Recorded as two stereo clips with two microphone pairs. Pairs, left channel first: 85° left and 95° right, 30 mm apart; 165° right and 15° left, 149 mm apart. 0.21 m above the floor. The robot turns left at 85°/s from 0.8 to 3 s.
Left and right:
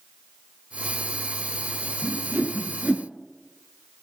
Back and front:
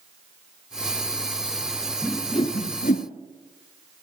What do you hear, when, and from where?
2.0 s a whoosh: 80° right, 1.9 m; by 3.0 s 160° right, 1.9 m